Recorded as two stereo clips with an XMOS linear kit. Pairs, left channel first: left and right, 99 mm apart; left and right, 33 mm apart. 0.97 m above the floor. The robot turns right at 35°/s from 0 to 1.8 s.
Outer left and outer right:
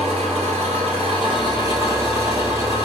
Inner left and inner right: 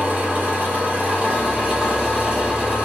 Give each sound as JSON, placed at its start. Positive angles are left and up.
{"t": 0.0, "sound": "an engine running", "azimuth_deg": -95, "distance_m": 1.6}